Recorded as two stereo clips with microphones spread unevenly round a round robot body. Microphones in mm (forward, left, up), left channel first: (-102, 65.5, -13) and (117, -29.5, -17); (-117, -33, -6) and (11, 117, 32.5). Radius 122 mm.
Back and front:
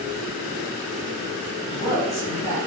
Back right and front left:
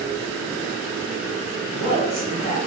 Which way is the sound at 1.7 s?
145° right.